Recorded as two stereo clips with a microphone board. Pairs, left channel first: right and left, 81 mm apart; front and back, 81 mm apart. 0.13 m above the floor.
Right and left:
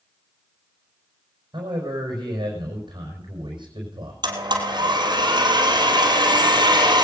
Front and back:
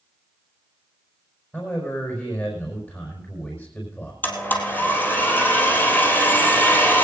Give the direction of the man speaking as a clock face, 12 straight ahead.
10 o'clock.